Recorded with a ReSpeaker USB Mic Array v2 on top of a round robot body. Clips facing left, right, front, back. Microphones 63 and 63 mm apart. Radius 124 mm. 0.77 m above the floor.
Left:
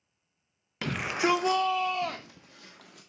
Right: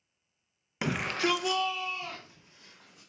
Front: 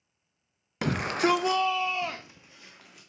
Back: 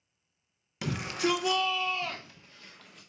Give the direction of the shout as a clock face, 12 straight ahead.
1 o'clock.